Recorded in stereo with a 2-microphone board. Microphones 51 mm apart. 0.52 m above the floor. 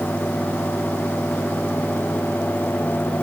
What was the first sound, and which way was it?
Only background noise.